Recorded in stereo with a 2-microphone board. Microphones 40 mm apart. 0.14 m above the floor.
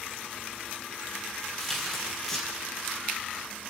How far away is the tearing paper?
About 3.5 m.